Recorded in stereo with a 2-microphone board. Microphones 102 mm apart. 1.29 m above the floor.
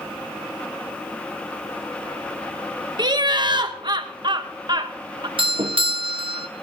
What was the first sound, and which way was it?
Laughter, 45° right (ahead or behind).